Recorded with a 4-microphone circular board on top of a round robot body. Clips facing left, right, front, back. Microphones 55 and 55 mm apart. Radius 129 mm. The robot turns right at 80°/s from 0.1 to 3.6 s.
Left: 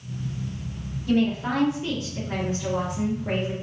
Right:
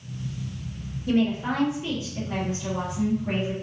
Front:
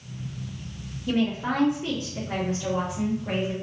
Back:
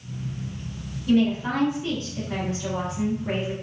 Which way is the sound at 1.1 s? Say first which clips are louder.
Left 1 dB, back 4 dB; 75° right.